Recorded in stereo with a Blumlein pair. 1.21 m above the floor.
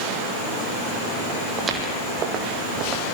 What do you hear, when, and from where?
1.6 s footsteps: 20° right, 3.5 m; by 3.1 s 40° right, 3 m